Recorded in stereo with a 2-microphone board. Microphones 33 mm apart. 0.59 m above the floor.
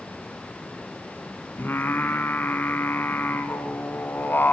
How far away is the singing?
About 1.6 m.